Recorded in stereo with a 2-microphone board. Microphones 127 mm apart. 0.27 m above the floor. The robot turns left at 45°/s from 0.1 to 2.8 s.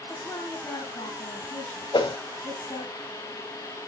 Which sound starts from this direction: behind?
A woman speaking, at 0.1 s.